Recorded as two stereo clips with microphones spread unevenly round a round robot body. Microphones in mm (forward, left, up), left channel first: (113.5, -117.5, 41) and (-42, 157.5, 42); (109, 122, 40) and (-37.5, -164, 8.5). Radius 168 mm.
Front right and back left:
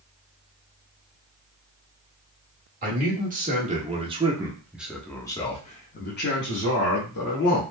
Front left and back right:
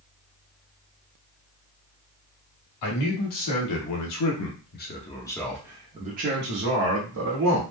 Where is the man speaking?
60° left, 1.5 m; by 7.6 s 105° right, 1.4 m.